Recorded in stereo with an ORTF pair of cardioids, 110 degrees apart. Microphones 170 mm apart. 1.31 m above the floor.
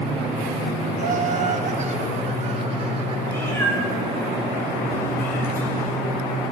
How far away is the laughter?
About 1.5 m.